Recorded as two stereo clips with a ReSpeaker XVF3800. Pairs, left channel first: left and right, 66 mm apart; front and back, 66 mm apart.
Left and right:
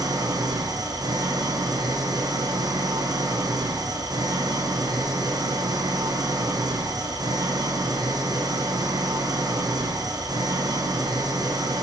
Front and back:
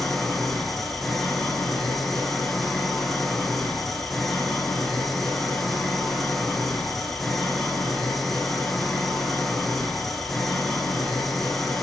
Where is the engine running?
85° right, 5 m.